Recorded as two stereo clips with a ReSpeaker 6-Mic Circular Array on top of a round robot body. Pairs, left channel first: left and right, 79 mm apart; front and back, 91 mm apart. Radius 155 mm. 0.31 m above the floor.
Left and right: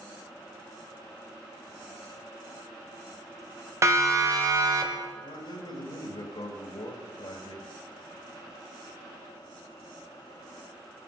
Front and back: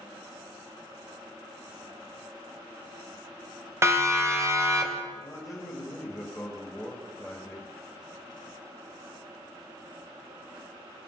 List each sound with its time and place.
3.8 s a siren: 130° right, 2.5 m; by 5.0 s 125° right, 3 m
5.1 s a man speaking: 85° left, 2.5 m